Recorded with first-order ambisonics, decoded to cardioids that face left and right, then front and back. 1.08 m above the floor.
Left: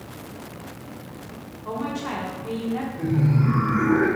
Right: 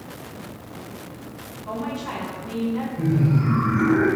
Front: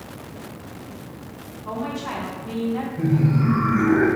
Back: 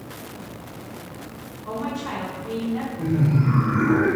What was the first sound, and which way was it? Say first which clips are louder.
A woman speaking: left 1 dB, even; 95° left.